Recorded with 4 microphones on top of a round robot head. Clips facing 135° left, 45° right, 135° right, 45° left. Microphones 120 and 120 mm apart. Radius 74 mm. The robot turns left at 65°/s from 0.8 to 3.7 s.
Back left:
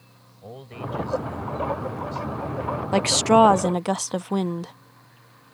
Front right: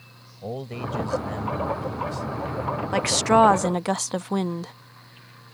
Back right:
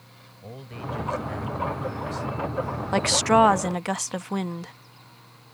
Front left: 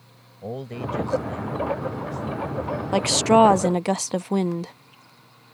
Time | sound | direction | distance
0.4 | a man speaking | 10° left | ?
2.9 | a woman speaking | 105° left | ?